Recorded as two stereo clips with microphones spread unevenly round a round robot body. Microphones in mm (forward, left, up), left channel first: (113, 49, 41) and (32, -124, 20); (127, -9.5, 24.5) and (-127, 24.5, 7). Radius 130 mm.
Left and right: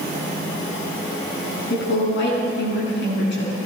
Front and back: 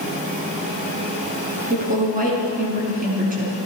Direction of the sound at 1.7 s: 115° left.